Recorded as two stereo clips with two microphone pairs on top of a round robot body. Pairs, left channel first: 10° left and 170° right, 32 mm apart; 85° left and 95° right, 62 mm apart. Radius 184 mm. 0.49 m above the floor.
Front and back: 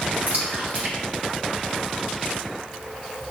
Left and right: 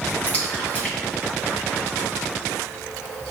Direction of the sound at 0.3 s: 150° left.